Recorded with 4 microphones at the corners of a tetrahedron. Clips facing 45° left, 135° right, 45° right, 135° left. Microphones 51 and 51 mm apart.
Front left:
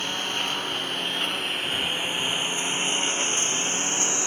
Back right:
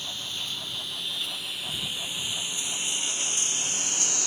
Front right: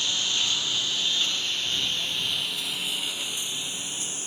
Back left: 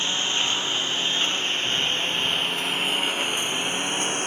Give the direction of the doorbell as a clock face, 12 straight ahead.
I don't hear a doorbell.